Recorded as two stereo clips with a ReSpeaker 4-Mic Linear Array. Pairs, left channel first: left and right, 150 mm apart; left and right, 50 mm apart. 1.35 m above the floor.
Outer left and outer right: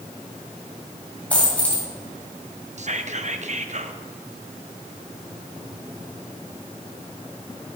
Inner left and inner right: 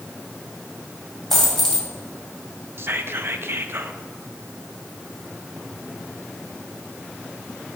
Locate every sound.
1.3 s a dropped coin: 10° left (ahead or behind), 2 m
2.8 s whispering: 50° right (ahead or behind), 0.6 m